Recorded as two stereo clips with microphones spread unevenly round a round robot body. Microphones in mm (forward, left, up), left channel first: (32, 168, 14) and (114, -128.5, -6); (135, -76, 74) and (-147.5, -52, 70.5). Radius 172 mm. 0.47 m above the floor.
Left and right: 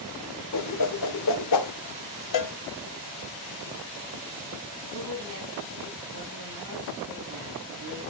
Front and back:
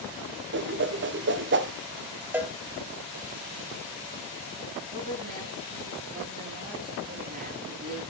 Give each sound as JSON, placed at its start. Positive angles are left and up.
{"t": 0.5, "sound": "a whoosh", "azimuth_deg": 135, "distance_m": 0.9}
{"t": 2.3, "sound": "a cowbell", "azimuth_deg": 90, "distance_m": 1.2}
{"t": 4.9, "sound": "a woman speaking", "azimuth_deg": -125, "distance_m": 9.0}